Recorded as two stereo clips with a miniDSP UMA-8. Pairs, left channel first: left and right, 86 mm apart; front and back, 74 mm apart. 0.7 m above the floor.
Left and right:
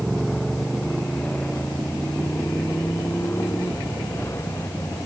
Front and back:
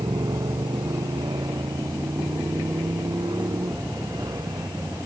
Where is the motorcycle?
Straight behind; by 5.1 s 145° left.